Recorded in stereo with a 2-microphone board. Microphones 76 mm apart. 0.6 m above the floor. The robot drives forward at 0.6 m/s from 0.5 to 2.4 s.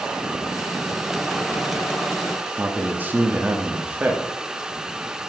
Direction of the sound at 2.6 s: 25° right (ahead or behind).